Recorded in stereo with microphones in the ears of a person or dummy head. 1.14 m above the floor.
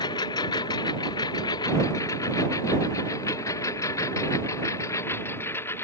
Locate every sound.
0.0 s a lawn mower: 25° left (ahead or behind); by 5.8 s 15° left (ahead or behind)